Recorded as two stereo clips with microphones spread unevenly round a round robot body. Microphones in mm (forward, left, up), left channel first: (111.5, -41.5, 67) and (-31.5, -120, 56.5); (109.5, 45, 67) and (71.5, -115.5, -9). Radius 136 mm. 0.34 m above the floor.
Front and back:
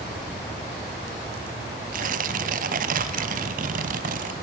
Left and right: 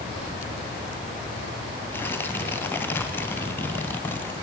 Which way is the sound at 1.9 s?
160° left.